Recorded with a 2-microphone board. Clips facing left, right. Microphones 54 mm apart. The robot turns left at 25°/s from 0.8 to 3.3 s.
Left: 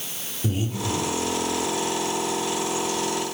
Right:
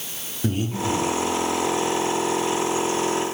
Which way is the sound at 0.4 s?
50° right (ahead or behind).